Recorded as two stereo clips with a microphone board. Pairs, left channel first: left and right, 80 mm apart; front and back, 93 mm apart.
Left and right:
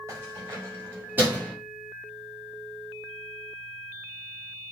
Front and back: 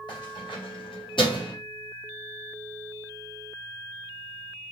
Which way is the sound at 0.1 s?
35° right.